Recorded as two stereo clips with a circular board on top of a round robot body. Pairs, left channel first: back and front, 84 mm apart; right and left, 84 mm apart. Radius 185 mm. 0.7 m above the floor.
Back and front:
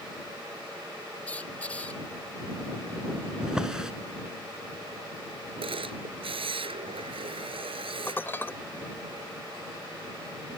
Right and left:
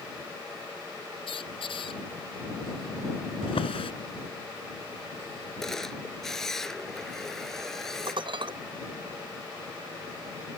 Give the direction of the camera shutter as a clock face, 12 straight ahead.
12 o'clock.